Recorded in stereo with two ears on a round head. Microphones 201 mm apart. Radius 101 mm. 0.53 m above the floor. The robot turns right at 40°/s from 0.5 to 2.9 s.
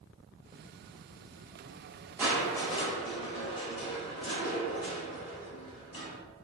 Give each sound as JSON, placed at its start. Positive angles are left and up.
{"t": 2.2, "sound": "crushing", "side_deg": -5, "distance_m": 1.0}